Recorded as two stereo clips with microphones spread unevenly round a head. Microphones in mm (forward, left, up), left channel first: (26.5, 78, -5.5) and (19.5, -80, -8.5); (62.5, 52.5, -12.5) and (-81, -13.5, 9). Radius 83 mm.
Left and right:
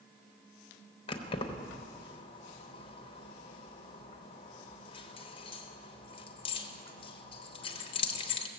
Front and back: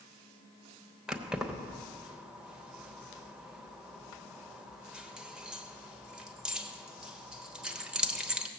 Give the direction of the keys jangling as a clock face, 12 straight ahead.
8 o'clock.